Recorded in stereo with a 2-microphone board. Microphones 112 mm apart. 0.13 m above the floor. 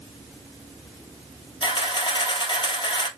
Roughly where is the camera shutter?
Left.